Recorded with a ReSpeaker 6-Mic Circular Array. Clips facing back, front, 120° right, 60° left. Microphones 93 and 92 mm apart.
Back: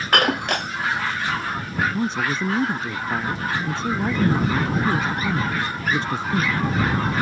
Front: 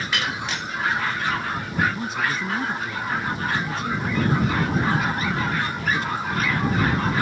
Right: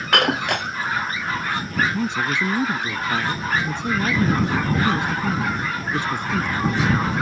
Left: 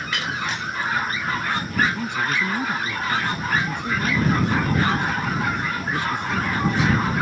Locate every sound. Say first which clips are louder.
0.1 s breaking glass: back 10 dB, right 9 dB; 145° right
1.9 s a man speaking: back 3 dB, right 2 dB; 160° right